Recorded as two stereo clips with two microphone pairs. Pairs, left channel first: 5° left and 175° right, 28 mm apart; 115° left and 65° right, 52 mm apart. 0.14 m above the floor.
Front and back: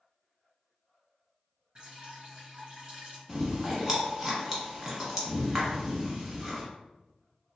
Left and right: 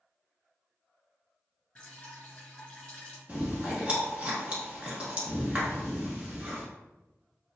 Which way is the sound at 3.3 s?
115° right.